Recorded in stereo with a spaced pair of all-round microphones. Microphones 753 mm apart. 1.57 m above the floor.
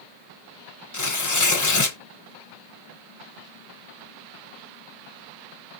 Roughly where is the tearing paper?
Left.